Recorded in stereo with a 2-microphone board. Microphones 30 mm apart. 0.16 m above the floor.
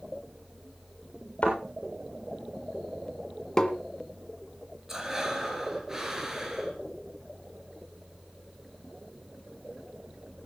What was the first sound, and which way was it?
A thud, 45° left (ahead or behind).